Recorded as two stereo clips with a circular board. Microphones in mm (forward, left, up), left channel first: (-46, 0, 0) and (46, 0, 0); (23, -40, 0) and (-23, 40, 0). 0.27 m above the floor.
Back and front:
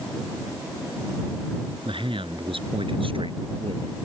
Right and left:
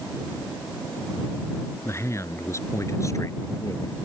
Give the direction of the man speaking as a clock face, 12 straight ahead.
12 o'clock.